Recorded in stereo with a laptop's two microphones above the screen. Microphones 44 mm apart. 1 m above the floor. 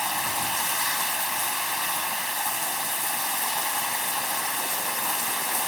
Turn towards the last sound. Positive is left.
turn(degrees=-5)  # may be behind; listen again after turning